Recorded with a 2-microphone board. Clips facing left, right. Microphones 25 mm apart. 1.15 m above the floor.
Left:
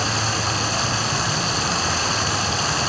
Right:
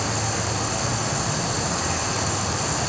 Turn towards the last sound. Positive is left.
turn(degrees=45)  # may be behind; listen again after turning